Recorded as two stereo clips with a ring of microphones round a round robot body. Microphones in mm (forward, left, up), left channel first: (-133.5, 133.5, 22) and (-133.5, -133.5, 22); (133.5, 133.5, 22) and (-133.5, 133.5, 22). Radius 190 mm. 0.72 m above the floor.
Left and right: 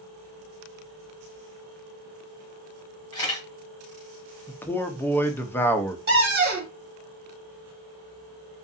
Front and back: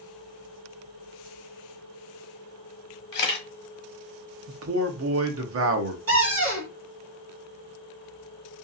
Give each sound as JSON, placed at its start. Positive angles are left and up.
{"t": 3.1, "sound": "a camera shutter", "azimuth_deg": 20, "distance_m": 1.1}
{"t": 4.5, "sound": "a man speaking", "azimuth_deg": 170, "distance_m": 0.7}
{"t": 6.1, "sound": "a cupboard door", "azimuth_deg": -135, "distance_m": 1.7}